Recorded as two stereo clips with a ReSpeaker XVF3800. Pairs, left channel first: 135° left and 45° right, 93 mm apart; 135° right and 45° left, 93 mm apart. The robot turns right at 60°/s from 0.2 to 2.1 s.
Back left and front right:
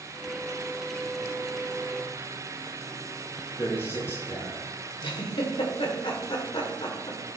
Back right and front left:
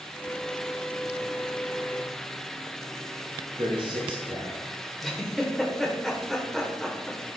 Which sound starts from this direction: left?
A man speaking, at 3.6 s.